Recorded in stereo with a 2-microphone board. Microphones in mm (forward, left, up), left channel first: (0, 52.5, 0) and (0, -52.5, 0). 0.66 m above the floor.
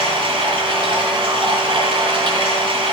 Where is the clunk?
I don't hear a clunk.